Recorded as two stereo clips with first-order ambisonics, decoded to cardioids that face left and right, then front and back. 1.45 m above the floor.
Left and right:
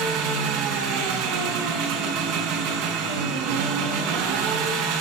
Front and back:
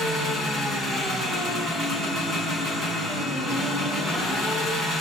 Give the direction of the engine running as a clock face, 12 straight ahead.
3 o'clock.